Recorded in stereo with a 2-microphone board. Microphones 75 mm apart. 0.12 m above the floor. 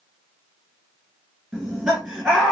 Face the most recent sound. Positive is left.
turn(degrees=-10)  # may be behind; listen again after turning